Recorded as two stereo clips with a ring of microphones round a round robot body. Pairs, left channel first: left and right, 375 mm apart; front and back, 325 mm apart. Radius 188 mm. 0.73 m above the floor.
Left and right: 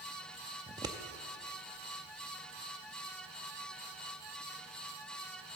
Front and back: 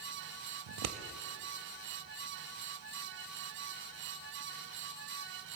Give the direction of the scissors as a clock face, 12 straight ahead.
6 o'clock.